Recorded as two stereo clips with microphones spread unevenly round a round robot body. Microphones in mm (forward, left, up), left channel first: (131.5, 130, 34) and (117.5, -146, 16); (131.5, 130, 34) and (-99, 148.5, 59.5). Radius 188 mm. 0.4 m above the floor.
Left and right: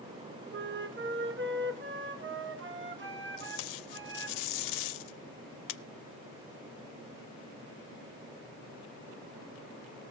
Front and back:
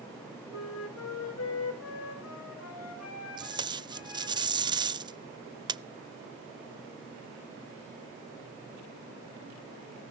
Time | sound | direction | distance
0.5 | a flute | 45° right | 1.8 m
3.4 | tape being pulled | 100° left | 0.5 m